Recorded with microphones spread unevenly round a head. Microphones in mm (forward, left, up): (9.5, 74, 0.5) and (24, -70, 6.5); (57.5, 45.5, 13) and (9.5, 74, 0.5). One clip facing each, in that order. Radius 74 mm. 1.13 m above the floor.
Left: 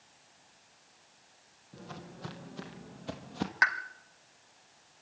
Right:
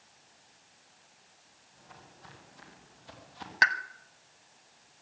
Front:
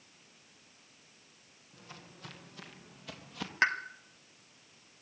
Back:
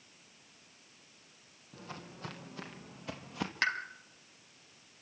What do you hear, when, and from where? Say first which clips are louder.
1.7 s footsteps: left 9 dB, back 6 dB; 105° left, 2.5 m; by 3.5 s 80° left, 2.5 m
3.6 s a pop: right 4 dB, front 4 dB; 65° right, 1.2 m